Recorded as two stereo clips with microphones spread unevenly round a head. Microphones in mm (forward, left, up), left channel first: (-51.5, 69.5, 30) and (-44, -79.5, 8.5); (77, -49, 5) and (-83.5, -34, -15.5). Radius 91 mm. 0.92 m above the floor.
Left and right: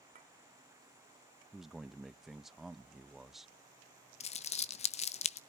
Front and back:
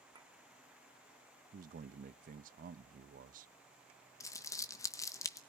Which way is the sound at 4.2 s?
65° left.